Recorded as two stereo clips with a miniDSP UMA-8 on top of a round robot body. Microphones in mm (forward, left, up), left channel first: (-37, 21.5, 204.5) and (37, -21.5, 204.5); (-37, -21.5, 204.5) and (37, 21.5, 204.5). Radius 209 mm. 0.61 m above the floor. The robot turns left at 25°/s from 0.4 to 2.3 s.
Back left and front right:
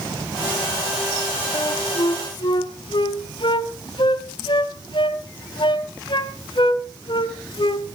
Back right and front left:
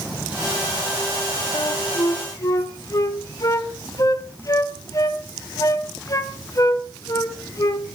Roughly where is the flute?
Behind.